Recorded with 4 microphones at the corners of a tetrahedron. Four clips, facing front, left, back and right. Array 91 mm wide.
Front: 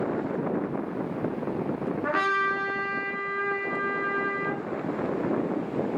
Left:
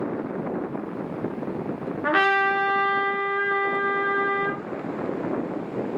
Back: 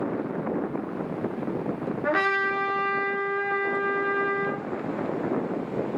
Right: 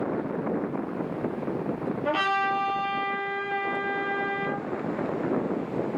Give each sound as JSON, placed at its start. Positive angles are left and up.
{"t": 2.0, "sound": "a trumpet", "azimuth_deg": 100, "distance_m": 3.0}